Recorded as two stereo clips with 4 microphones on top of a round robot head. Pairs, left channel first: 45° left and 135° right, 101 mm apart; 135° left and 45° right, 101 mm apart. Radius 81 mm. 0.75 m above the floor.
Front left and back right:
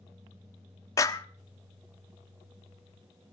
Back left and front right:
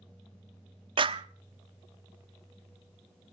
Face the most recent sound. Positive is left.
turn(degrees=-10)